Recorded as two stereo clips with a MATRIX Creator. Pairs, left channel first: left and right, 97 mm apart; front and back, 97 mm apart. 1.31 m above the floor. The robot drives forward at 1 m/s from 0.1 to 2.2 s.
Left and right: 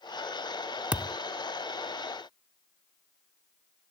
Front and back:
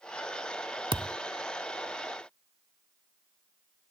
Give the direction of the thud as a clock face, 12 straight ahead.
5 o'clock.